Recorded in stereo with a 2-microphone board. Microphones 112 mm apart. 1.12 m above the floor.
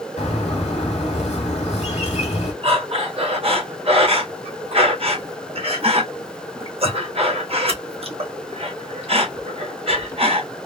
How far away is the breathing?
About 1.4 m.